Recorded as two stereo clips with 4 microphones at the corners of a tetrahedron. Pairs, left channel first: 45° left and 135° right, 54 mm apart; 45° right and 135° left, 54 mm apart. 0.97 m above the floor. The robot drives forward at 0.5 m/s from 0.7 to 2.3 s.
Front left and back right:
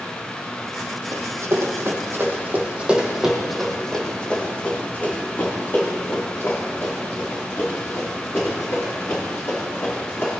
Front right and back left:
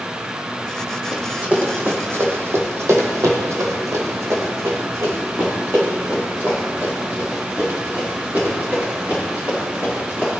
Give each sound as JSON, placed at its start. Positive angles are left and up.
{"t": 1.1, "sound": "running footsteps", "azimuth_deg": -150, "distance_m": 2.0}